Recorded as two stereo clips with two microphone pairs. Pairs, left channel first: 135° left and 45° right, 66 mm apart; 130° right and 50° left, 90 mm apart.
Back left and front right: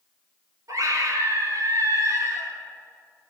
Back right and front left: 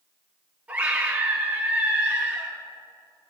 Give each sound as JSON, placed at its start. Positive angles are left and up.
{"t": 0.7, "sound": "a scream", "azimuth_deg": -25, "distance_m": 5.5}